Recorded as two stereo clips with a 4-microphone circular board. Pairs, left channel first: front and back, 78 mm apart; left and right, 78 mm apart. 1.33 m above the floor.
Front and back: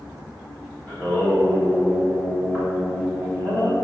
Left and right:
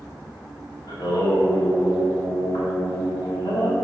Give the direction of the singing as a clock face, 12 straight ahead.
10 o'clock.